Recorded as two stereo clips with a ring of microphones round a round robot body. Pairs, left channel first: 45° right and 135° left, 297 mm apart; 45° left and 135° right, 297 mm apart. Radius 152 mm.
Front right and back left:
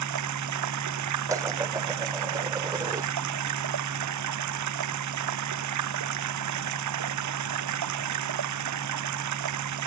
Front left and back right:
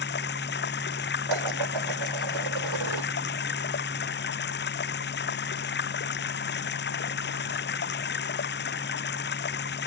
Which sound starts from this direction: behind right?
Dishes clattering, at 1.3 s.